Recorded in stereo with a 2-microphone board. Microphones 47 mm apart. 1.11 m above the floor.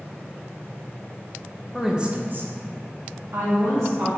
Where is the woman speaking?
Centre (ahead or behind), 0.7 m; by 4.1 s 90° right, 2 m.